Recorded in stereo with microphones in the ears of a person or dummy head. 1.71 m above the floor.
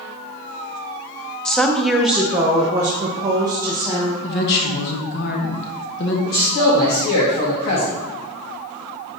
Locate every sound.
1.4 s a woman speaking: 5° left (ahead or behind), 0.7 m; by 4.1 s 15° right (ahead or behind), 1.1 m
4.2 s a woman speaking: 60° left (ahead or behind), 1.1 m
6.2 s a man speaking: 50° left (ahead or behind), 1.2 m